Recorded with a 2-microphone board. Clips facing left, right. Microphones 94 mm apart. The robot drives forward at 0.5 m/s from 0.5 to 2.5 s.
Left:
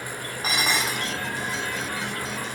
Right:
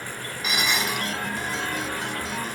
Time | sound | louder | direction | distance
0.4 | dishes clattering | even | 35° left (ahead or behind) | 3 m